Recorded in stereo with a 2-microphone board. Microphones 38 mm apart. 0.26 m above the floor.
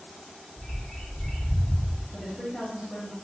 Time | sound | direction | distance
0.6 | a bird | 10° left (ahead or behind) | 1.2 m
2.1 | a woman speaking | 15° left (ahead or behind) | 1.0 m